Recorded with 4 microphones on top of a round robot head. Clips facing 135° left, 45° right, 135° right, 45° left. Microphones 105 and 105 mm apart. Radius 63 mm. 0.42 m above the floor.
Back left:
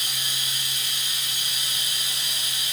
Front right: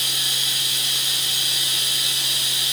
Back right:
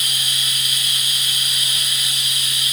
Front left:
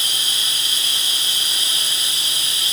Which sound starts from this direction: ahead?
Running water, at 0.0 s.